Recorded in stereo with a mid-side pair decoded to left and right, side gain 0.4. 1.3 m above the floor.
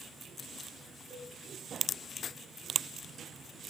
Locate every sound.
1.1 s a cowbell: 10° left, 4 m